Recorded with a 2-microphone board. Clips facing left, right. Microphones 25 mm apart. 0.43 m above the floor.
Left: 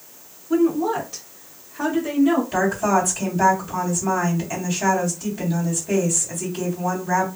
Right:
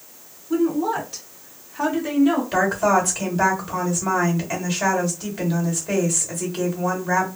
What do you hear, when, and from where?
0.5 s a woman speaking: 15° left (ahead or behind), 0.9 m; by 2.4 s 25° right (ahead or behind), 1.2 m
2.5 s a woman speaking: 40° right (ahead or behind), 1.7 m